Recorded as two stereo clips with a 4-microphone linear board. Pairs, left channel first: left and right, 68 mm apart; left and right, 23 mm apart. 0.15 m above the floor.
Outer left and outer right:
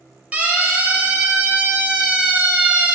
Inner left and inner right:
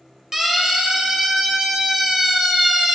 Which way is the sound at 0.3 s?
20° right (ahead or behind).